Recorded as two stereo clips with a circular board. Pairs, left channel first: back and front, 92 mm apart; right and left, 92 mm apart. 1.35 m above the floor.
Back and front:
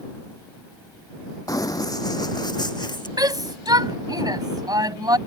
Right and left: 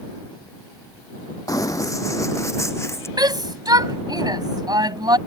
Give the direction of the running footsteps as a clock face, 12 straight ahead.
5 o'clock.